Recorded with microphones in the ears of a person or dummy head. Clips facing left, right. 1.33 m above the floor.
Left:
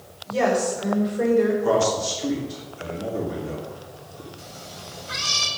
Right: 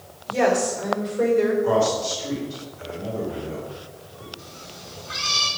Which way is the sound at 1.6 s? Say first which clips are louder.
Even; 85° left.